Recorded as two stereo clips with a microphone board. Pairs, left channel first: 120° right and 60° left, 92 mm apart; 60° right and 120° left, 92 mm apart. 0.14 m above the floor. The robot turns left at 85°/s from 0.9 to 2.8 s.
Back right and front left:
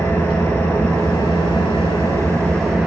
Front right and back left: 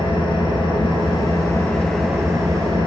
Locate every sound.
0.0 s an engine running: 60° right, 2.5 m; by 2.9 s 140° left, 2.5 m